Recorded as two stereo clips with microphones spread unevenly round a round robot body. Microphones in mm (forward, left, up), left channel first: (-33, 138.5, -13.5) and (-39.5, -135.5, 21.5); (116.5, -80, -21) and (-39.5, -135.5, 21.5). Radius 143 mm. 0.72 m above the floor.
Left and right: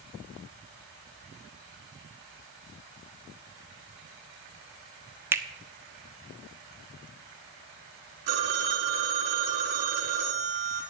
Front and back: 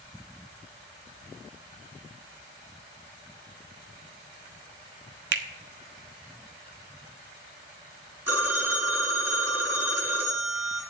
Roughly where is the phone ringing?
Right.